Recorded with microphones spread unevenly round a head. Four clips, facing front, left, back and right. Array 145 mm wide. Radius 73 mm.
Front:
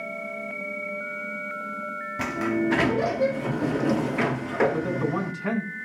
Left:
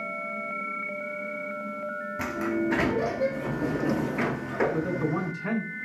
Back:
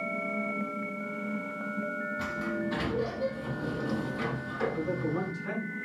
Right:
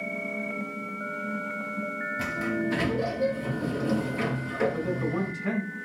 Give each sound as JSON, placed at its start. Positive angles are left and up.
{"t": 2.2, "sound": "a sliding door", "azimuth_deg": 20, "distance_m": 2.0}
{"t": 4.7, "sound": "a man speaking", "azimuth_deg": 15, "distance_m": 8.0}